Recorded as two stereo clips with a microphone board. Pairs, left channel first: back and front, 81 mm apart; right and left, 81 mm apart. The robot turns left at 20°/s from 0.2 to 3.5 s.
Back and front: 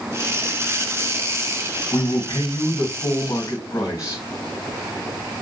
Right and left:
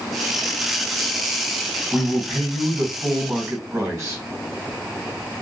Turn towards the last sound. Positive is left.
turn(degrees=145)